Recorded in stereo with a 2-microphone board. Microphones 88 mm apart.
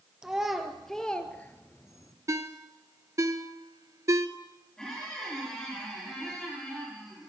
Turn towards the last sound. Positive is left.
turn(degrees=5)  # may be behind; listen again after turning